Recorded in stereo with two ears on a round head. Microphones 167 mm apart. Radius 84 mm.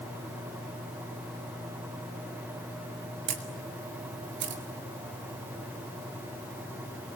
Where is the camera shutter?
60° right (ahead or behind), 2 m.